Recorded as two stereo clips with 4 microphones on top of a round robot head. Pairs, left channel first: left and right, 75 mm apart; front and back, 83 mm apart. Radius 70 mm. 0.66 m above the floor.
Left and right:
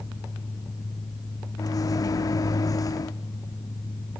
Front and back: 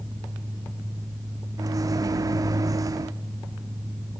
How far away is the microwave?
About 0.9 m.